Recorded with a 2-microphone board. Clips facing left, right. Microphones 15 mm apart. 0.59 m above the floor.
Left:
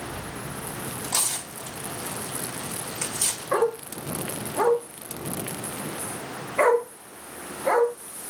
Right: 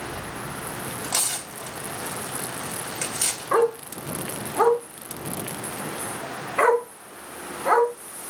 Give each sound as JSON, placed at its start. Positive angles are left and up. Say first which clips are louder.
{"t": 1.0, "sound": "tearing paper", "louder": "even", "side_deg": -45, "distance_m": 3.0}
{"t": 3.5, "sound": "a dog barking", "louder": "right 3 dB", "side_deg": -35, "distance_m": 2.5}